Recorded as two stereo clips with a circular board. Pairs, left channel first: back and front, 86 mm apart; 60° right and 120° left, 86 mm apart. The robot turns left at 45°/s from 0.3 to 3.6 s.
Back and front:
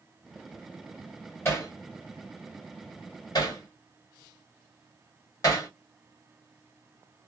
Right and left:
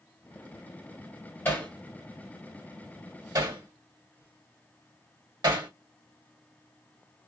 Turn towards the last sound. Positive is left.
turn(degrees=140)